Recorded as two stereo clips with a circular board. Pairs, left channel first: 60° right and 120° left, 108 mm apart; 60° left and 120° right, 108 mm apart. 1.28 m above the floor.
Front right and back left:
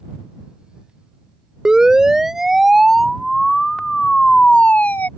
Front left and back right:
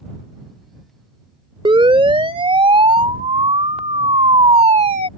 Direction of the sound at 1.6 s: 160° right.